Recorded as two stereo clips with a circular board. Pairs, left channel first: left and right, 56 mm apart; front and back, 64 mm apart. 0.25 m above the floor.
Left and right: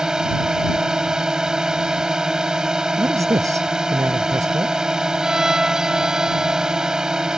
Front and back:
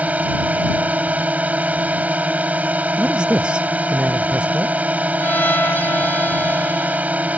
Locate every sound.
0.0 s a drone: 155° right
3.0 s a man speaking: 105° right
5.2 s a violin: 20° right